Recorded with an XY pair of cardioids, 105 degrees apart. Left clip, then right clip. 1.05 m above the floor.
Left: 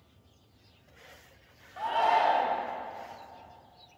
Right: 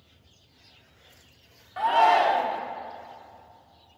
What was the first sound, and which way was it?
A shout, 50° right.